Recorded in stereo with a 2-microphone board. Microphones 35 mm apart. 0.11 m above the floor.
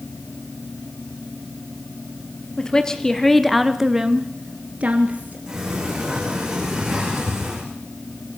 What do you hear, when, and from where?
2.6 s a woman speaking: 20° left (ahead or behind), 2 m; by 5.4 s 45° right (ahead or behind), 2 m
5.5 s a sliding door: 20° right (ahead or behind), 8 m